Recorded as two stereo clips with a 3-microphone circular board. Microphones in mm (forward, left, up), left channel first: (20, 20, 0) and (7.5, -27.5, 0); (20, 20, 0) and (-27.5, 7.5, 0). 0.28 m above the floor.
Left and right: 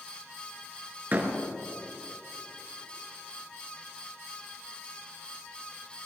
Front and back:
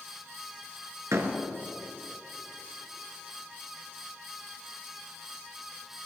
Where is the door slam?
155° right, 2.5 m.